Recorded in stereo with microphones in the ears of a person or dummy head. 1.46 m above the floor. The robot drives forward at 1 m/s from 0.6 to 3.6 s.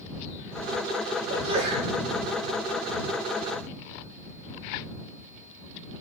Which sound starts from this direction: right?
A sneeze, at 1.3 s.